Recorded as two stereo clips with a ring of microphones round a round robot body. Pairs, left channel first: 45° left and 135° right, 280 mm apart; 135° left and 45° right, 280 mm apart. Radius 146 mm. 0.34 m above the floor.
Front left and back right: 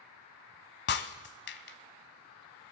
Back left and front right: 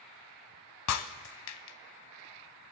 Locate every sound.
0.9 s breaking glass: 100° left, 0.7 m